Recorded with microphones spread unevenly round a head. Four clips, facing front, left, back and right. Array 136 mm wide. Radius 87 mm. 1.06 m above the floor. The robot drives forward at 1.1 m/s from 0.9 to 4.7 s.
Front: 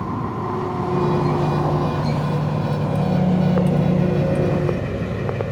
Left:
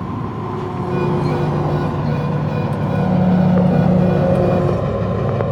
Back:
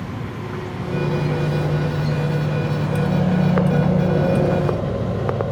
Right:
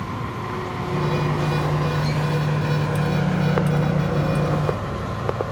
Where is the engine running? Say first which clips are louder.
Left 4 dB, front 5 dB; 30° left; by 5.5 s 70° left.